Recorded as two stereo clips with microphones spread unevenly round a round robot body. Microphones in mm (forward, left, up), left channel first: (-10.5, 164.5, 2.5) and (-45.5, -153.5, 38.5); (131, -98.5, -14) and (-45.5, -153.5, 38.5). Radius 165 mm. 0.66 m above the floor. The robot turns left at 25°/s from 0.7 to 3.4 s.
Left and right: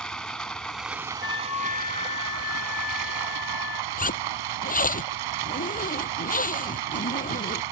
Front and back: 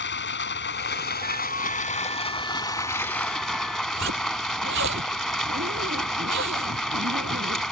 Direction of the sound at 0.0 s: 5° right.